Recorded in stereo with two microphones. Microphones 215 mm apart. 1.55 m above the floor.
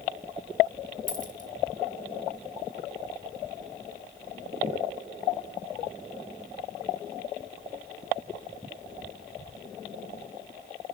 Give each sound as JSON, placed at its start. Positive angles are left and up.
{"t": 1.1, "sound": "a dropped coin", "side_deg": -40, "distance_m": 1.8}